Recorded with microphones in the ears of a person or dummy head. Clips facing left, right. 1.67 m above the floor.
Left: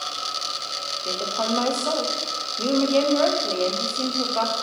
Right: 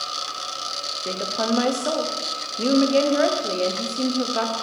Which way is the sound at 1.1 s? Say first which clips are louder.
Right 2 dB; 20° right (ahead or behind).